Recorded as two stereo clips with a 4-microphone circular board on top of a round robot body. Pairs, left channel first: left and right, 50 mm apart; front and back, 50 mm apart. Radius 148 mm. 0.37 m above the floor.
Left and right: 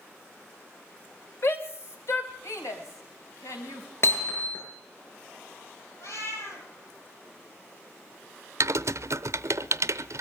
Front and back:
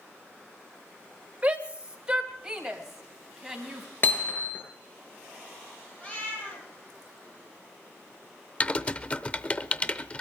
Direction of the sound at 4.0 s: 50° left.